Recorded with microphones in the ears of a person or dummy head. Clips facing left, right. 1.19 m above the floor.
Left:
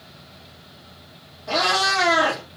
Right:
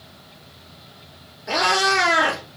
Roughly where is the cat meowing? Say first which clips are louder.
Right 2 dB; right.